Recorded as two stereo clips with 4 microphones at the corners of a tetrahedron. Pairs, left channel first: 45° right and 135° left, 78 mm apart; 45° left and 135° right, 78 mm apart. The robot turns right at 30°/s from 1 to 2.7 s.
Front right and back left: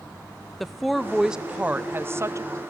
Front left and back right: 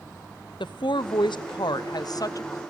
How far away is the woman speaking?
About 0.8 m.